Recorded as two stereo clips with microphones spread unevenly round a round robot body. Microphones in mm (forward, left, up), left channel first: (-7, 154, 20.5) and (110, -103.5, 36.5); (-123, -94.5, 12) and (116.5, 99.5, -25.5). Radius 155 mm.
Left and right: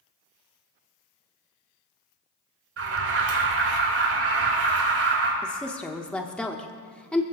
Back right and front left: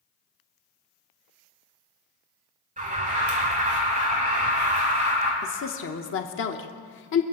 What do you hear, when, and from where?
2.8 s an alarm: 25° right, 3.5 m
5.4 s a woman speaking: 165° right, 1.0 m